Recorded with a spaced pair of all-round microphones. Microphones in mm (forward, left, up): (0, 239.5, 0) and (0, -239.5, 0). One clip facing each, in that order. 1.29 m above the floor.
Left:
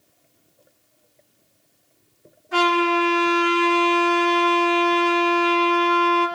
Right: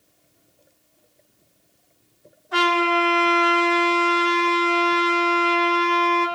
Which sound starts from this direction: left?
A trumpet, at 2.5 s.